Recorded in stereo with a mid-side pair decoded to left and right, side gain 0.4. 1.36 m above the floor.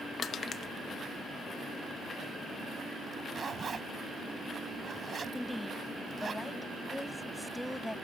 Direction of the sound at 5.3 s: 5° left.